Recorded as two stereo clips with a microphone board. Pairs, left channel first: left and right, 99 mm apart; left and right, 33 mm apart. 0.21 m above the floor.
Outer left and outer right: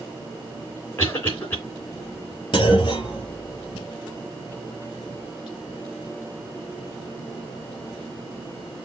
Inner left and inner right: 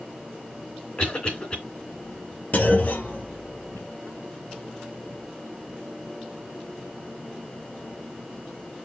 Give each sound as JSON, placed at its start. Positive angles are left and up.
{"t": 1.0, "sound": "a cough", "side_deg": 25, "distance_m": 3.0}
{"t": 2.5, "sound": "a clunk", "side_deg": 45, "distance_m": 2.0}